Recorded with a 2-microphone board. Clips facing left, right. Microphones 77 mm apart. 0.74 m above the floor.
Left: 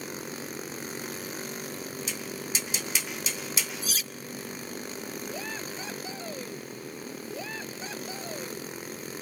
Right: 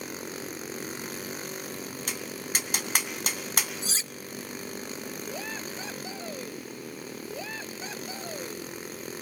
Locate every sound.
2.1 s tapping: 60° right (ahead or behind), 2.5 m
3.8 s cutlery clinking: 30° right (ahead or behind), 0.5 m